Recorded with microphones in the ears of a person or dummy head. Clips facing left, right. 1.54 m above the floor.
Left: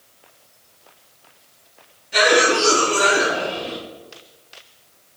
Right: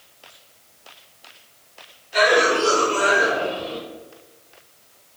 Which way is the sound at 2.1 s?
70° left (ahead or behind).